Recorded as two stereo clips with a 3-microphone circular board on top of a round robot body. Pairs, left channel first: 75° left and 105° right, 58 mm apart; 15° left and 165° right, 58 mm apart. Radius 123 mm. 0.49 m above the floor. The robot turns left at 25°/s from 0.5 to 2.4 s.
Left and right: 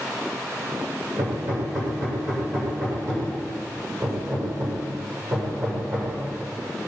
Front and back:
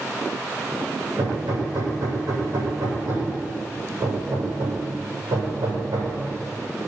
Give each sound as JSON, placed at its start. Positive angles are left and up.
{"t": 1.2, "sound": "hammering", "azimuth_deg": -120, "distance_m": 8.0}